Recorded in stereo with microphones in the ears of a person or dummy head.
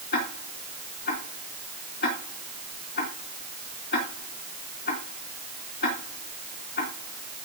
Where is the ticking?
50° left (ahead or behind), 3 m.